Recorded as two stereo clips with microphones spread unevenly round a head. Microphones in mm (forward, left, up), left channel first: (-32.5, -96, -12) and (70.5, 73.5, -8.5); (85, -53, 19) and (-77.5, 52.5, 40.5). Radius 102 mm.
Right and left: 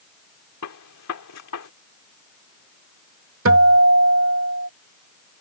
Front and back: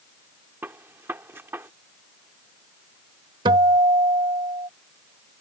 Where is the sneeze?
I don't hear a sneeze.